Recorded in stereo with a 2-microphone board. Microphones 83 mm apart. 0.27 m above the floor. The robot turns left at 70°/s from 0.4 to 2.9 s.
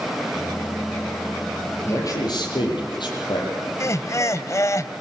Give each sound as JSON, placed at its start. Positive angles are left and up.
{"t": 1.9, "sound": "a man speaking", "azimuth_deg": 150, "distance_m": 7.5}
{"t": 3.8, "sound": "laughter", "side_deg": 40, "distance_m": 1.1}